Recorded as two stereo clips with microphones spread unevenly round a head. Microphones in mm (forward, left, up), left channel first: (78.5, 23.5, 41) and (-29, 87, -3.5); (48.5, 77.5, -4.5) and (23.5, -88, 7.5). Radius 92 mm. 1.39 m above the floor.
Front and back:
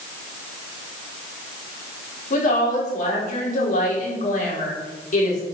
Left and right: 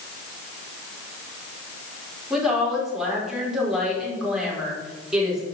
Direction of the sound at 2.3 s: 10° right.